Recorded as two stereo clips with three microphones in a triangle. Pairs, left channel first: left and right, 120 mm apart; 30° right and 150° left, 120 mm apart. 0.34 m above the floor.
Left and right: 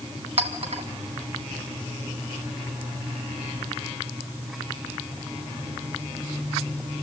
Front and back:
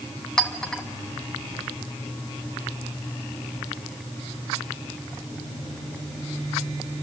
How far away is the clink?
About 1.8 m.